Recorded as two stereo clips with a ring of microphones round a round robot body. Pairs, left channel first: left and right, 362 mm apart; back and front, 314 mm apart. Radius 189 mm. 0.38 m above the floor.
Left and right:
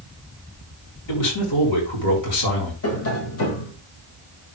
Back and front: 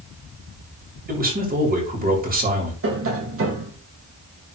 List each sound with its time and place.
1.1 s a man speaking: 60° left, 3 m
2.8 s tapping: 40° left, 2.5 m